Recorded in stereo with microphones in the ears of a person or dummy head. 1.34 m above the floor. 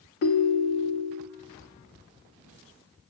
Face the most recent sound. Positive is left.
turn(degrees=50)  # may be behind; listen again after turning